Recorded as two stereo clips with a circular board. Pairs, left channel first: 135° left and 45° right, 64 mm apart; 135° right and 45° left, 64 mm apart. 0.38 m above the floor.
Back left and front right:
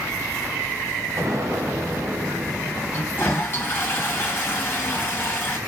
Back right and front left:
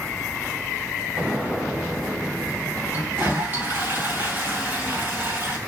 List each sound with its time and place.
1.2 s an explosion: 25° right, 1.5 m
2.9 s a toilet flushing: 95° left, 2 m